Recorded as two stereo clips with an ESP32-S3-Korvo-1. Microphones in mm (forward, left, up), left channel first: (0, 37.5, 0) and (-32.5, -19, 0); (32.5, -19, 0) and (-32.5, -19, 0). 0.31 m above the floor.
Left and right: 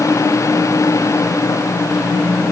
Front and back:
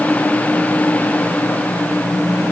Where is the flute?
No flute in this recording.